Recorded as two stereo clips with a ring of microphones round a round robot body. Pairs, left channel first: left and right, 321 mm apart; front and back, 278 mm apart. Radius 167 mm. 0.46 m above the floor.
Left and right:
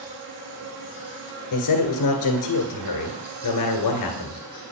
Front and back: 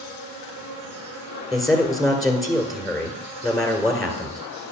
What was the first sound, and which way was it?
An insect, 145° right.